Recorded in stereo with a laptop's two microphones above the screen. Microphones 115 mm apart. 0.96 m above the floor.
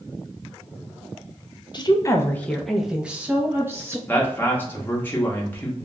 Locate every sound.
1.7 s a woman speaking: 40° left (ahead or behind), 0.5 m; by 4.0 s 25° right (ahead or behind), 1.1 m
4.1 s a man speaking: 15° left (ahead or behind), 1.0 m